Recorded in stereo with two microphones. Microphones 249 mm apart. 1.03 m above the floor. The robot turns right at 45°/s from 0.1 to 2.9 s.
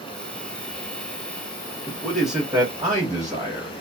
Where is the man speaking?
165° left, 1.0 m; by 3.7 s 150° right, 1.0 m.